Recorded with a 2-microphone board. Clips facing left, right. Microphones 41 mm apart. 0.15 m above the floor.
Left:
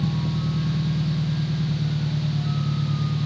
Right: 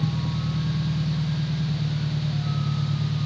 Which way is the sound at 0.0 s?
40° left (ahead or behind).